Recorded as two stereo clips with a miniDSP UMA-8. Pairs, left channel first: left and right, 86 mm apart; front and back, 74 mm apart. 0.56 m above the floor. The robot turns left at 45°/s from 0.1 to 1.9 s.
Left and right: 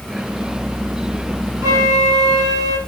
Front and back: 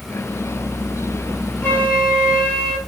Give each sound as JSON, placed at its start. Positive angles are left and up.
{"t": 1.6, "sound": "a flute", "azimuth_deg": -55, "distance_m": 2.0}